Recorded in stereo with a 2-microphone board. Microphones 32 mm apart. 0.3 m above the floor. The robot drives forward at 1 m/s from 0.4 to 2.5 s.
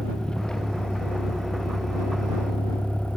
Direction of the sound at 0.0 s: 20° left (ahead or behind).